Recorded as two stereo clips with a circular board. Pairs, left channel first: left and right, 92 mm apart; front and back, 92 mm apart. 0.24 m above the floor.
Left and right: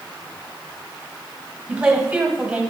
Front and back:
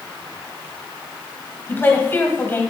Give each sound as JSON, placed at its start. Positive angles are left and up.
{"t": 1.7, "sound": "a woman speaking", "azimuth_deg": -25, "distance_m": 1.4}